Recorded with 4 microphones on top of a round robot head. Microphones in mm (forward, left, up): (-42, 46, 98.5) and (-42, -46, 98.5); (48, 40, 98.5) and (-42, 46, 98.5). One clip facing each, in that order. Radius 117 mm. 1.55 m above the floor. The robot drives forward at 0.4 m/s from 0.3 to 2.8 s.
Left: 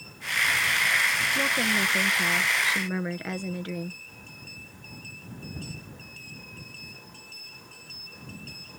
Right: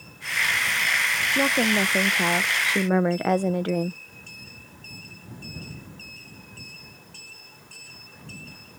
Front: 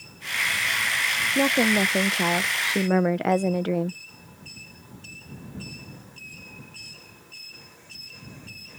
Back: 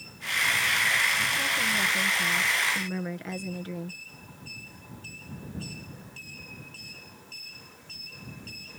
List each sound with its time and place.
1.4 s a woman speaking: 25° right; by 4.0 s 40° right